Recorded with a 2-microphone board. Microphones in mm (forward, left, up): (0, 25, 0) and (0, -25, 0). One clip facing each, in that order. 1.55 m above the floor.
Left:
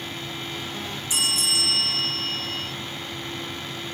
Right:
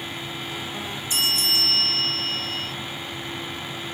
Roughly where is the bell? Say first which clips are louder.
Right 2 dB; centre.